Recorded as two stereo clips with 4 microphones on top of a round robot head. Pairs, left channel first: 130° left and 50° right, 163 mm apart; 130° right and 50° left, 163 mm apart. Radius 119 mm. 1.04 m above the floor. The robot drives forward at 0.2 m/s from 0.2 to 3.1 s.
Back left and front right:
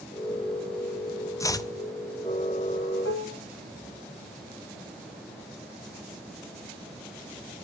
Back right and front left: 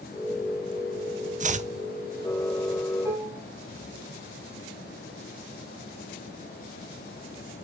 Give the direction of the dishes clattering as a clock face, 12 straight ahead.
8 o'clock.